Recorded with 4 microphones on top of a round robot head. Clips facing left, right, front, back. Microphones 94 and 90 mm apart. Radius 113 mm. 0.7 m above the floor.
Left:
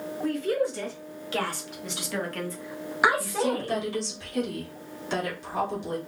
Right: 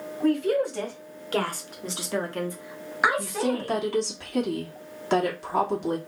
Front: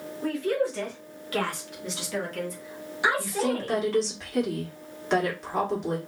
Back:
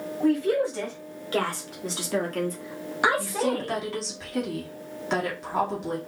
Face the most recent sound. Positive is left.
turn(degrees=-95)